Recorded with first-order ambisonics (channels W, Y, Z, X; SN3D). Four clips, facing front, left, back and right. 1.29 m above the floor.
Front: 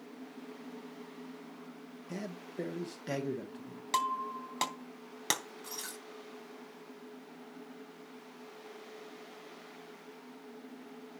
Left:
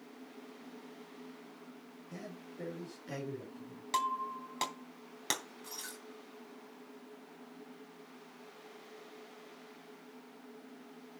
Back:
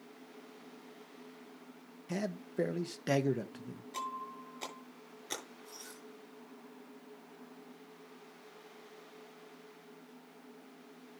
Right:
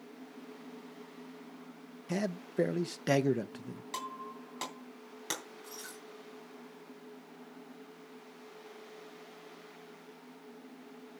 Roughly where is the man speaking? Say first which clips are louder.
Right 13 dB, back 5 dB; right.